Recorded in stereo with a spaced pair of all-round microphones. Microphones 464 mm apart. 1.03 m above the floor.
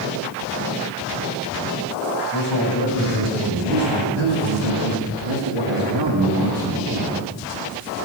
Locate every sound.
2.3 s a man speaking: 55° right (ahead or behind), 4.5 m; by 7.2 s 15° right (ahead or behind), 2 m